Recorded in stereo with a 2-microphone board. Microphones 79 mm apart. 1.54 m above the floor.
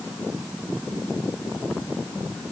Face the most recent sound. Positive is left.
No sound to turn to.